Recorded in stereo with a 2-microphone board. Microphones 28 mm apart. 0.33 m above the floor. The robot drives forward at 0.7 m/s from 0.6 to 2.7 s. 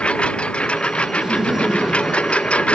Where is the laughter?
20° right (ahead or behind); by 2.6 s 25° right (ahead or behind).